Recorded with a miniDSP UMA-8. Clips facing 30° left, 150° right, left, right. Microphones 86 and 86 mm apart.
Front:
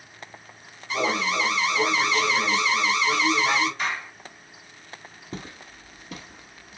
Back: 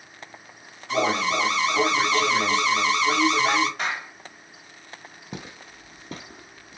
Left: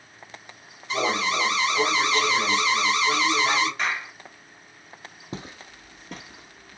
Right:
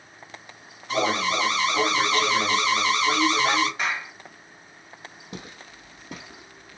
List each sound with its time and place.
0.9 s an alarm: 130° right, 1.5 m
3.8 s a clap: 165° right, 1.8 m
5.3 s footsteps: 140° left, 1.3 m; by 6.8 s 145° right, 1.5 m